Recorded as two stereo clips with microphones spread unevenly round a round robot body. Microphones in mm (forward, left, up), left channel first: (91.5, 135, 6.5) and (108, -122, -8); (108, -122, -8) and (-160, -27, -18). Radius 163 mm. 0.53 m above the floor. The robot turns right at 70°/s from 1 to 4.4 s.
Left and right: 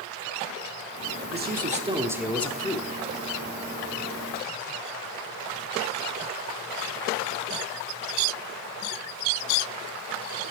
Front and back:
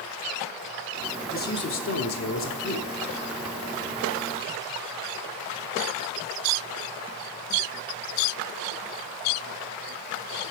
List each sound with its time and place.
1.3 s a man speaking: 70° right, 1.1 m; by 3.0 s 45° left, 1.1 m